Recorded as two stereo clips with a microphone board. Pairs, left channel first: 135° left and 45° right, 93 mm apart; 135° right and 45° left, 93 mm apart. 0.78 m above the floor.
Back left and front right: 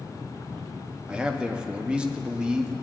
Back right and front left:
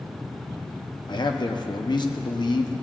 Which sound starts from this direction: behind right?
A man speaking, at 1.1 s.